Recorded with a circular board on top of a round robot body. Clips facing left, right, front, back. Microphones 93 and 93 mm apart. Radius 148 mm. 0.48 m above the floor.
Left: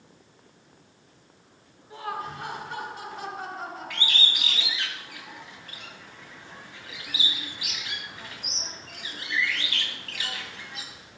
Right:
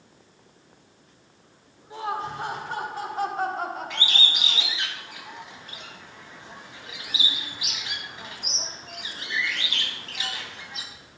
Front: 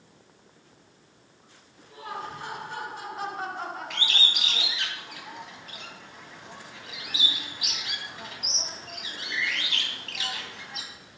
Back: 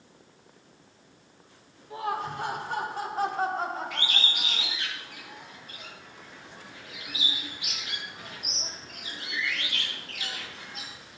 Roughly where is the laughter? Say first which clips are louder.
Right 4 dB, back 6 dB; behind.